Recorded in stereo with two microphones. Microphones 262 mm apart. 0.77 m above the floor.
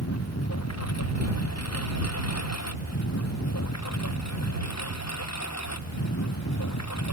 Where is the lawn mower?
70° left (ahead or behind); by 7.2 s 90° left.